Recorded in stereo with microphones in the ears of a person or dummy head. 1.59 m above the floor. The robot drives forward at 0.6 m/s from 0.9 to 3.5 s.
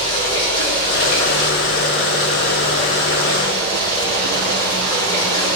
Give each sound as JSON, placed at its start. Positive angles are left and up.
{"t": 0.0, "sound": "running water", "side_deg": 40, "distance_m": 2.0}